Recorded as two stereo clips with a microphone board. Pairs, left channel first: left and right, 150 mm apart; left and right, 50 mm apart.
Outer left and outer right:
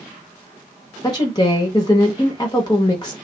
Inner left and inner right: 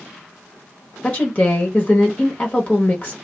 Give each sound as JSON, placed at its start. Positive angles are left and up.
{"t": 1.0, "sound": "a woman speaking", "side_deg": 30, "distance_m": 0.8}